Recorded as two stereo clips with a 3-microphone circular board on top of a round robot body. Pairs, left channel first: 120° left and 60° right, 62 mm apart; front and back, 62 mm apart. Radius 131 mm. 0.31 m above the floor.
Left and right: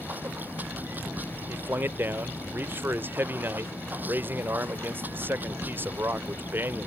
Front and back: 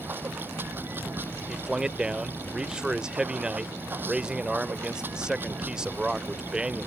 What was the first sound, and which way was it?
Running water, 120° right.